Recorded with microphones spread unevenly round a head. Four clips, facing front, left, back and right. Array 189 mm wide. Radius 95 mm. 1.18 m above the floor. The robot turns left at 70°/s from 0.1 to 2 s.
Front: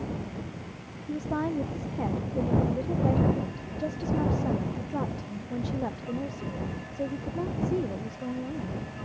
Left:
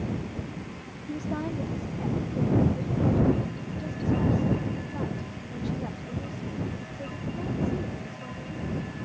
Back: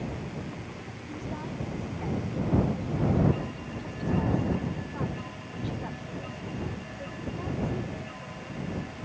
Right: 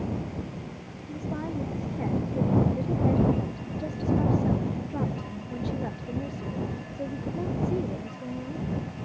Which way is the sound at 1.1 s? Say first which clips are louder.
Left 1 dB, front 8 dB; 35° left.